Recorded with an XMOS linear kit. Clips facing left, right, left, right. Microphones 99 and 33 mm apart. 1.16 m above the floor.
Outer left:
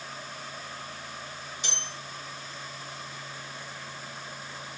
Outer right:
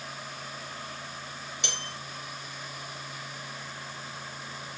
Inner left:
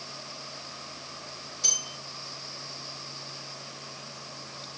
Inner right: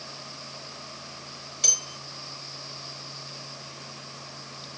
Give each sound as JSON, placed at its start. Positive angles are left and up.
{"t": 1.6, "sound": "a bell", "side_deg": -75, "distance_m": 3.5}